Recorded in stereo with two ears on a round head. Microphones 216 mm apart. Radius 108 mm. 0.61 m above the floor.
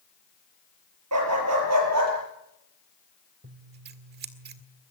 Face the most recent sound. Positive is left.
turn(degrees=-45)  # may be behind; listen again after turning